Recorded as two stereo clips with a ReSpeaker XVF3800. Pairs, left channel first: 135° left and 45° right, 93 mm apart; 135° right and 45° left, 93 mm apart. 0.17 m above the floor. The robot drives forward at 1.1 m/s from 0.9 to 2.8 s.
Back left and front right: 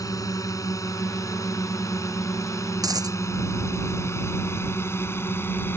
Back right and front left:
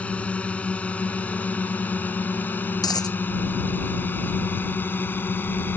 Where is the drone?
155° left; by 5.8 s 175° left.